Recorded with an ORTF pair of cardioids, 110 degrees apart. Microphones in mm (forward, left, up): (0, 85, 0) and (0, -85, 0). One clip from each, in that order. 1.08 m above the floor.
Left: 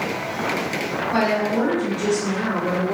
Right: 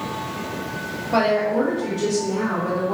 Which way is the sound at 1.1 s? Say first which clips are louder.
Right 3 dB; 10° right.